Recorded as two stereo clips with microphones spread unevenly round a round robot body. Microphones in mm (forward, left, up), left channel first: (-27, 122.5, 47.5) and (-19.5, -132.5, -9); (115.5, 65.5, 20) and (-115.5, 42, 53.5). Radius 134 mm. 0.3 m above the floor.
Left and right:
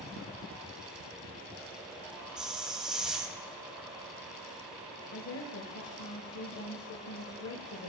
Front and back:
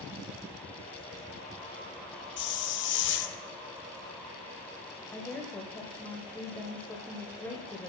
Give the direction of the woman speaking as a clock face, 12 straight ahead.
9 o'clock.